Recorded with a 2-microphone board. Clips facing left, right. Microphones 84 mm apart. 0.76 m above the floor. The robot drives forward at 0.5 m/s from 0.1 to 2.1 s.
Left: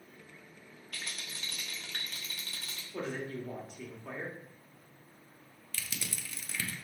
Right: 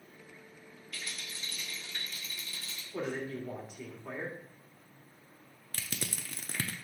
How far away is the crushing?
About 0.7 m.